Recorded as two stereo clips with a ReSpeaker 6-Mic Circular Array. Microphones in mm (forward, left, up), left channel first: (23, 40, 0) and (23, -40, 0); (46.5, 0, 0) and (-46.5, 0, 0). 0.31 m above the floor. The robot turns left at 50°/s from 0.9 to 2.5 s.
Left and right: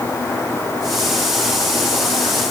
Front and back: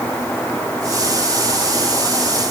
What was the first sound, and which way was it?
Only background noise.